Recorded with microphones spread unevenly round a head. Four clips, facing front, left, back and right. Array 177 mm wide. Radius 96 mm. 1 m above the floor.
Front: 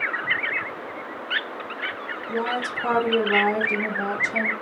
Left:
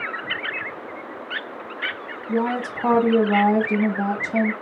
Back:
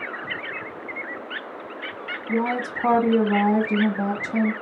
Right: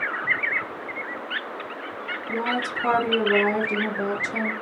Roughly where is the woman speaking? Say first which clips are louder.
Left 4 dB, back 2 dB; behind left.